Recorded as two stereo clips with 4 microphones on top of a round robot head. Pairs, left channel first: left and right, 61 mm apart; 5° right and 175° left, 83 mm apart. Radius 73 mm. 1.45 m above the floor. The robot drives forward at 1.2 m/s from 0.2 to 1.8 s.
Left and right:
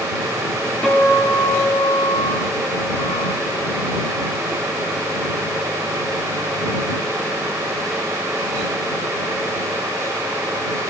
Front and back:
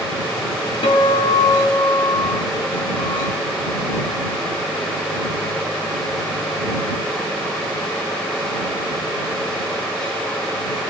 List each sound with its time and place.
0.8 s a guitar: 20° left, 1.7 m; by 3.4 s 55° left, 0.7 m